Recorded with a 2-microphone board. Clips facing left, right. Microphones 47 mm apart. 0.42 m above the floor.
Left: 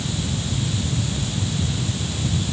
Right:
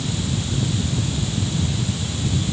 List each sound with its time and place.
Only background noise.